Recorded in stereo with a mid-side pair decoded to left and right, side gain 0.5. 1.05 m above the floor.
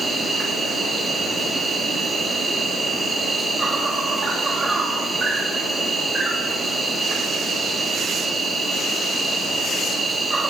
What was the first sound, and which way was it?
An insect, 20° right.